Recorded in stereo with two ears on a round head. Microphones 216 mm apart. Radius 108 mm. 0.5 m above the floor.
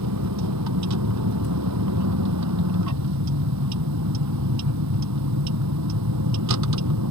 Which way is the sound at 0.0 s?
85° right.